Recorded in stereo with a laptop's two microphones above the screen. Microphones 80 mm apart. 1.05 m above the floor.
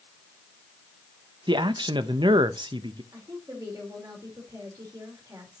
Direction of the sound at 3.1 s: 50° right (ahead or behind).